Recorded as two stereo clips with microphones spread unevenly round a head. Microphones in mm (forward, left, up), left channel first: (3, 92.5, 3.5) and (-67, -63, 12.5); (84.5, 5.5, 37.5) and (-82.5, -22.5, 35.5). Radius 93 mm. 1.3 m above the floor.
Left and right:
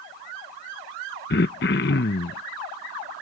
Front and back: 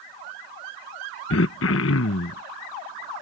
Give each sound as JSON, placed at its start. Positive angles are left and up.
{"t": 1.3, "sound": "throat clearing", "azimuth_deg": 25}